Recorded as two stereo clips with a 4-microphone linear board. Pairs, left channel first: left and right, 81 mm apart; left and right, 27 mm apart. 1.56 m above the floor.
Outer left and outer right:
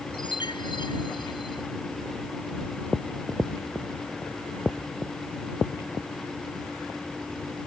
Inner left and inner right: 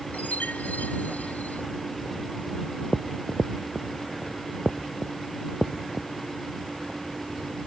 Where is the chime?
85° left.